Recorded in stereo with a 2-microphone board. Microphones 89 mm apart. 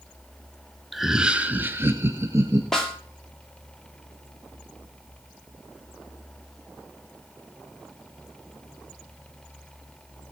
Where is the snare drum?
5° left (ahead or behind), 5 m.